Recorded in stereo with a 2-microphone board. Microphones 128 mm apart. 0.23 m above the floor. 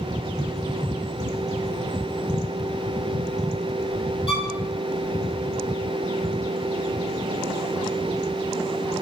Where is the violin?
50° left (ahead or behind), 0.6 m.